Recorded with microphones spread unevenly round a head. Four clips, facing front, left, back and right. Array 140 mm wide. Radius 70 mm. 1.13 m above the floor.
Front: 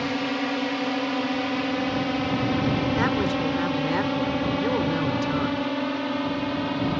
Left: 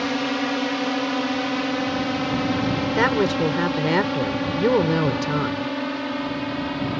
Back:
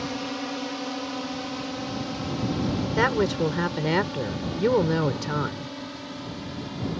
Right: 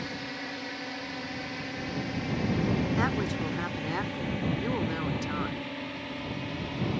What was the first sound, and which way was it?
A drone, 75° left.